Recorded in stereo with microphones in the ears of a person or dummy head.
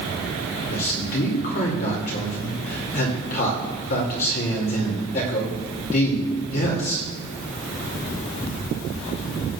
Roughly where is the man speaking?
Left.